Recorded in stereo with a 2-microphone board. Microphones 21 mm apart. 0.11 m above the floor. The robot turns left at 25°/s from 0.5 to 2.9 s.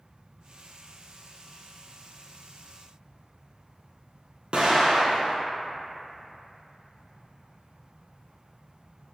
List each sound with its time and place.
4.5 s an explosion: 55° right (ahead or behind), 0.7 m